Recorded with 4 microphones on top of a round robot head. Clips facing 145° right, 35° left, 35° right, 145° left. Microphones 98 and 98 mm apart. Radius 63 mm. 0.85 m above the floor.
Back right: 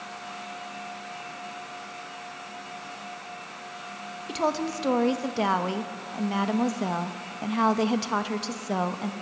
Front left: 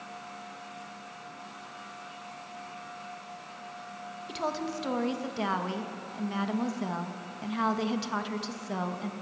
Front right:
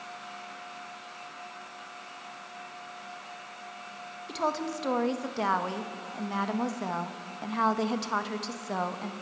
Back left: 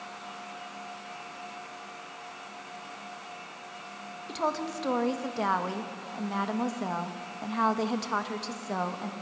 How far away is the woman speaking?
About 1.2 m.